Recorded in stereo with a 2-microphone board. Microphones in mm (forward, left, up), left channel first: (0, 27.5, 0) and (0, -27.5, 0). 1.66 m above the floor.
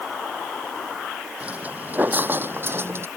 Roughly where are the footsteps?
Right.